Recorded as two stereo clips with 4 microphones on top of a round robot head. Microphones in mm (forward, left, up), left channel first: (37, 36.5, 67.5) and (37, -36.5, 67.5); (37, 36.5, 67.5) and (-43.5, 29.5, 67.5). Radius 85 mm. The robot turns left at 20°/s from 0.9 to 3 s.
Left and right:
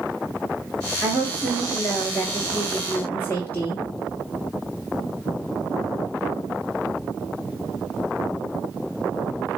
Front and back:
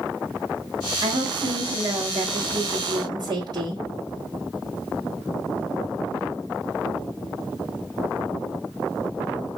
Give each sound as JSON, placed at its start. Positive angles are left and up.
{"t": 1.0, "sound": "a woman speaking", "azimuth_deg": -160, "distance_m": 1.5}